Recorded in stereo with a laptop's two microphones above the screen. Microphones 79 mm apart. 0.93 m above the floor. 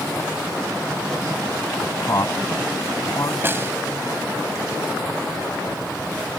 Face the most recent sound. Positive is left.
turn(degrees=-30)  # may be behind; listen again after turning